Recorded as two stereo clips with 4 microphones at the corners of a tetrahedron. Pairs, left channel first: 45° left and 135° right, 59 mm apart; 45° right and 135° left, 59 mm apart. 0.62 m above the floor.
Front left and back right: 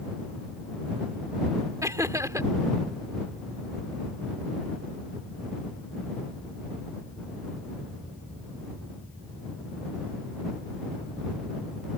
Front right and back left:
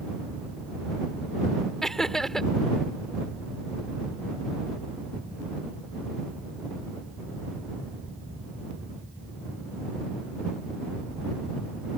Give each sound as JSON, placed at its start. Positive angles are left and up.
{"t": 1.8, "sound": "laughter", "azimuth_deg": -125}